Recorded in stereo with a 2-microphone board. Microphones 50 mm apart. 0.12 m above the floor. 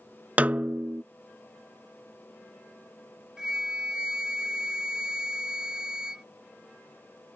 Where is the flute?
15° right (ahead or behind).